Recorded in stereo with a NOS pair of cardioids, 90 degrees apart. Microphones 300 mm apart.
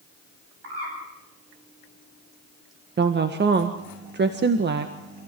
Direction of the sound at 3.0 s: 35° right.